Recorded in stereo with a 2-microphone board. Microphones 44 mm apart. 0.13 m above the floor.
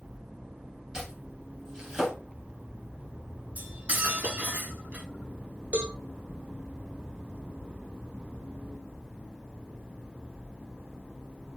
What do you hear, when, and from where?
0.9 s chopping: 15° right (ahead or behind), 3 m
3.6 s cutlery clinking: 30° right (ahead or behind), 0.8 m
5.7 s a cowbell: 35° right (ahead or behind), 0.8 m